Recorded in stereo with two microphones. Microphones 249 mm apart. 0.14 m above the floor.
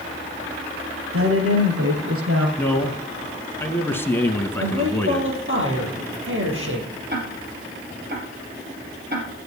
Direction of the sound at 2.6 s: 10° left (ahead or behind).